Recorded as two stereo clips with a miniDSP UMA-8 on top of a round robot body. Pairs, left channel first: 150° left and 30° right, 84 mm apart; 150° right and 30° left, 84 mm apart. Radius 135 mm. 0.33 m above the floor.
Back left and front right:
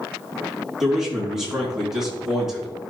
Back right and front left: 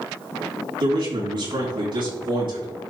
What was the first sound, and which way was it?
A man speaking, 55° left.